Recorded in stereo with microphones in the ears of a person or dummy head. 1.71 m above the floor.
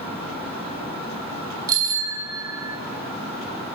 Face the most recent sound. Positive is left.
turn(degrees=-15)  # may be behind; listen again after turning